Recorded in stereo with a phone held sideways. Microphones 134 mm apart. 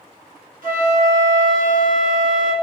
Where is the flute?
75° right (ahead or behind), 1.4 m.